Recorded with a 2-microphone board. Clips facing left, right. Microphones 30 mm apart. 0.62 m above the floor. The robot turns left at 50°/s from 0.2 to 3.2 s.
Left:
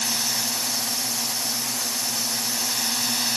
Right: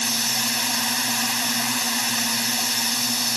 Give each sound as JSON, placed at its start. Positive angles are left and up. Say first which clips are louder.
{"t": 0.0, "sound": "a drone", "louder": "right 2 dB", "azimuth_deg": -30}